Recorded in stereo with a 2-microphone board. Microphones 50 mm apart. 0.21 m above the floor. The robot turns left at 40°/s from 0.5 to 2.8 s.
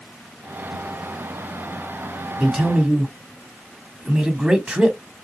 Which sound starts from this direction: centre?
A man speaking, at 2.4 s.